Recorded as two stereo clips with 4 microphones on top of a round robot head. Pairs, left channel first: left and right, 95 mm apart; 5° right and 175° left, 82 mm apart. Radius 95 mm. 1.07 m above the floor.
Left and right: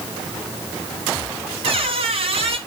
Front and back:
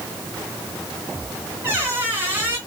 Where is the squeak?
115° right, 1.0 m.